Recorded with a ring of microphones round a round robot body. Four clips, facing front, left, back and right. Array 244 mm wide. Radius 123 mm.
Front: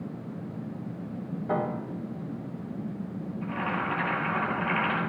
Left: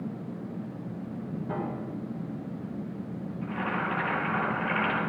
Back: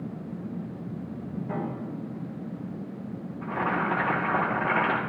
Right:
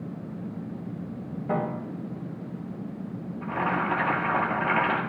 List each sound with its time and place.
1.5 s a piano: 45° right, 2.5 m
3.4 s boiling: 145° right, 5 m